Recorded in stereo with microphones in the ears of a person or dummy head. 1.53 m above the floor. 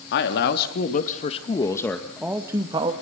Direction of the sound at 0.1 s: 65° left (ahead or behind).